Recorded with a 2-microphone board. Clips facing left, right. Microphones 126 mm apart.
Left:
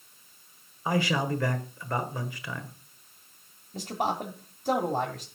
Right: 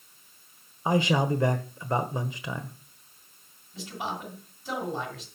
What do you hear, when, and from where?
0.8 s a man speaking: 20° right (ahead or behind), 1.1 m
3.7 s a man speaking: 55° left (ahead or behind), 1.8 m